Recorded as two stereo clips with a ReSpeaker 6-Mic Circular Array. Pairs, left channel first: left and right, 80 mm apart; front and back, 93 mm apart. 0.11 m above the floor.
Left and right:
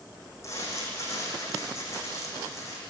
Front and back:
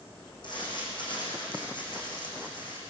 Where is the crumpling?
40° left, 7.5 m.